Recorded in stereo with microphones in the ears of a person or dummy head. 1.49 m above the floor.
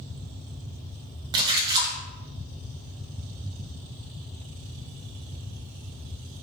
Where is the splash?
20° right (ahead or behind), 1.1 m.